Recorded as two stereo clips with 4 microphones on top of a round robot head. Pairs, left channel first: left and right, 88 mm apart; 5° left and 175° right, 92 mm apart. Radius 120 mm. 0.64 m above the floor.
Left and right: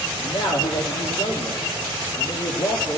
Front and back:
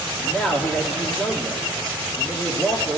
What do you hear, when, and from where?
0.2 s a man speaking: 85° left, 1.8 m